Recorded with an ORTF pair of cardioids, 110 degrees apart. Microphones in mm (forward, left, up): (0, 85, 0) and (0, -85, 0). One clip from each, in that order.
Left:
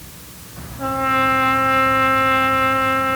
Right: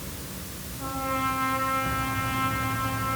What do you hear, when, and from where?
0.8 s a trumpet: 60° left, 3 m